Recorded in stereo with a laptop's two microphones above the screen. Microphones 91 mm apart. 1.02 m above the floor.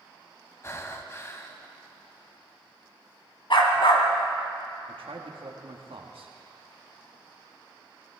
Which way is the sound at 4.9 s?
80° right.